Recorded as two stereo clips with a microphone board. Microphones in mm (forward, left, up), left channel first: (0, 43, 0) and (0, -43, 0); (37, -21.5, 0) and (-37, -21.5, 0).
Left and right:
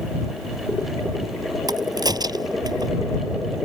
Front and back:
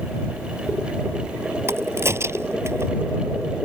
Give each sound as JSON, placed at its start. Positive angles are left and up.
{"t": 1.7, "sound": "a crack", "azimuth_deg": -130}